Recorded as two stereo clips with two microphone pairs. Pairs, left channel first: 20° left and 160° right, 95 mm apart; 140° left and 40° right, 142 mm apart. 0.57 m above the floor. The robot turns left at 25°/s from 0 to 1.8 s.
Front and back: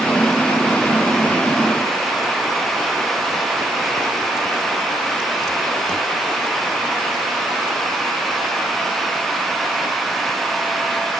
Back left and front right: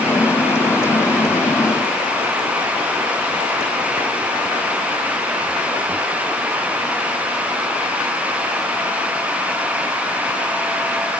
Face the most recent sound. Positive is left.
No sound to turn to.